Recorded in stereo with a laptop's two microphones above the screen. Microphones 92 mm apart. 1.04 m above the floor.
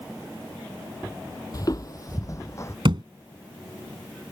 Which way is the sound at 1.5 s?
40° left (ahead or behind).